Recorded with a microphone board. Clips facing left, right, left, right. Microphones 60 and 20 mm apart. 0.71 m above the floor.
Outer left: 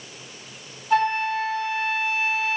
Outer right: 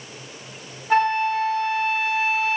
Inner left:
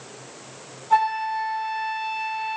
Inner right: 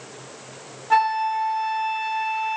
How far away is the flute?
About 2 m.